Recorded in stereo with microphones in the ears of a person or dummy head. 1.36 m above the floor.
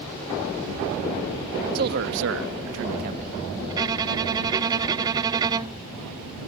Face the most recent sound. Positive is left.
turn(degrees=-20)  # may be behind; listen again after turning